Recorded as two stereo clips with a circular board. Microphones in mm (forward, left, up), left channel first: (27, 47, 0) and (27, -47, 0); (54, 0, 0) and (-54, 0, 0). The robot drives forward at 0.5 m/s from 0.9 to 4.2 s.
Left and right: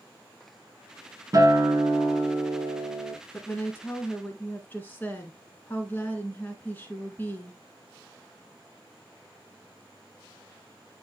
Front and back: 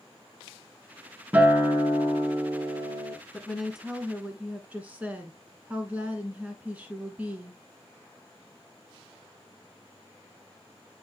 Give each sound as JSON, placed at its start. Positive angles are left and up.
{"t": 1.3, "sound": "a guitar", "azimuth_deg": -115, "distance_m": 1.3}
{"t": 3.3, "sound": "a woman speaking", "azimuth_deg": 80, "distance_m": 1.4}